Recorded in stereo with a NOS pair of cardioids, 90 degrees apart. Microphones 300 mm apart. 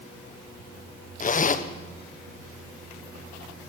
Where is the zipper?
30° left, 1.6 m.